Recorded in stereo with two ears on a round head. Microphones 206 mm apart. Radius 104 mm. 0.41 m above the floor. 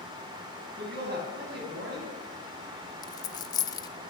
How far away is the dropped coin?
About 0.8 m.